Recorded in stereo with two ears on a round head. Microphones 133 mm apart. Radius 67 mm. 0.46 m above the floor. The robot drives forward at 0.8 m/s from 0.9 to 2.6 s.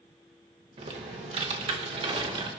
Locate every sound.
0.8 s typing on a keyboard: 40° right (ahead or behind), 1.5 m; by 2.5 s 35° right (ahead or behind), 1.8 m